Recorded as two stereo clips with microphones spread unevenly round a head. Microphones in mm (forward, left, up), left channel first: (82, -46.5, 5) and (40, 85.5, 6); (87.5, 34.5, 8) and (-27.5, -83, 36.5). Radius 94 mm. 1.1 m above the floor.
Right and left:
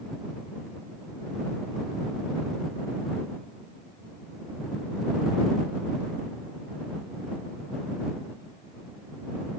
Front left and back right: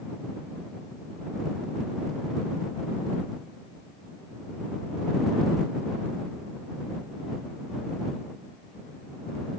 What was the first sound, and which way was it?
Only background noise.